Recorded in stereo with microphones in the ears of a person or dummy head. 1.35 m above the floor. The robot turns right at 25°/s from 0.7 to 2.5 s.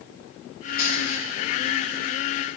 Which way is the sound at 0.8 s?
10° right (ahead or behind).